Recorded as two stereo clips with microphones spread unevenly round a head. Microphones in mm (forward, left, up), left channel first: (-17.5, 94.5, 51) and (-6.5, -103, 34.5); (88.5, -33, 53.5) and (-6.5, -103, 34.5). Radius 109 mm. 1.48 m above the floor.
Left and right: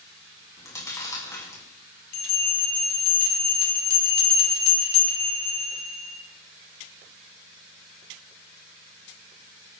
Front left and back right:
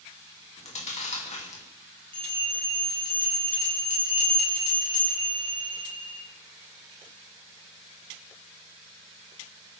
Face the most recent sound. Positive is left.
turn(degrees=80)